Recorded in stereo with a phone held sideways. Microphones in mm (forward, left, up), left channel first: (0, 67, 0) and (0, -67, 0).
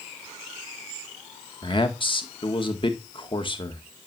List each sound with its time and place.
1.6 s a man speaking: 40° left (ahead or behind), 1.9 m